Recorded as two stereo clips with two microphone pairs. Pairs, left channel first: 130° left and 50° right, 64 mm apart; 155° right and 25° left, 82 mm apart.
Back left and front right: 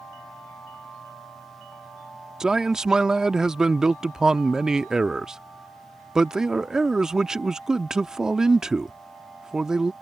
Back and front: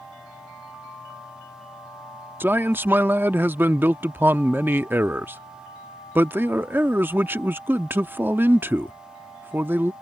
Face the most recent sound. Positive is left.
turn(degrees=25)